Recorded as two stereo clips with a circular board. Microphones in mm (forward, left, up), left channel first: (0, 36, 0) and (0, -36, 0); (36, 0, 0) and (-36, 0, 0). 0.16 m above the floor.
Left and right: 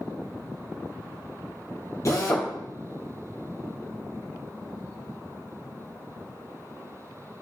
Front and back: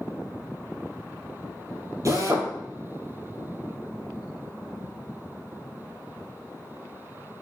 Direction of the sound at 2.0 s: 135° left.